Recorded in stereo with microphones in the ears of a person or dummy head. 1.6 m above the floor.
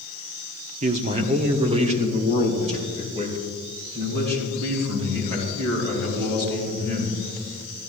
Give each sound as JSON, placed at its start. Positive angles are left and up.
{"t": 0.8, "sound": "a man speaking", "side_deg": -35, "distance_m": 0.6}